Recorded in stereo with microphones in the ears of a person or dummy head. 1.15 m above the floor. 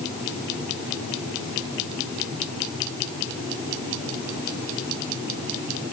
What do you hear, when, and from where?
Only background noise.